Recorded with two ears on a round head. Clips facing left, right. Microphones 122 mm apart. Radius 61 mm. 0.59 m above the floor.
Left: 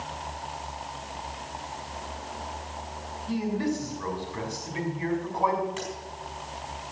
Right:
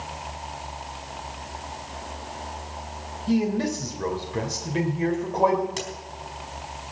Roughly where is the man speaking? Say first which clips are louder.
Right 5 dB; right.